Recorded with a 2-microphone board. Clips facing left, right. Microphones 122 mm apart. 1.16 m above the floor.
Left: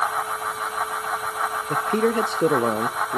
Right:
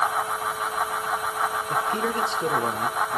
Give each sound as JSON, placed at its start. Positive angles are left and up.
{"t": 1.7, "sound": "a man speaking", "side_deg": 50, "distance_m": 0.6}